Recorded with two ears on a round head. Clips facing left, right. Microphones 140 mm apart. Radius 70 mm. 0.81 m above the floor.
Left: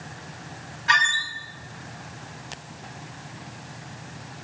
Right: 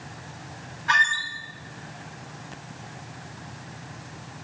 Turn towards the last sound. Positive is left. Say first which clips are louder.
# left 1 dB
turn(degrees=25)  # may be behind; listen again after turning